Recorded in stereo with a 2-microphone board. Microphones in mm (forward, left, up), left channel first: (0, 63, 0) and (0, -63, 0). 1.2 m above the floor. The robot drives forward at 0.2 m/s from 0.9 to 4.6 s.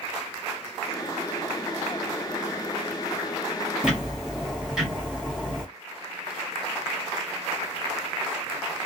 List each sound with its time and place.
3.8 s ticking: 10° right (ahead or behind), 1.2 m; by 5.7 s 5° right (ahead or behind), 1.4 m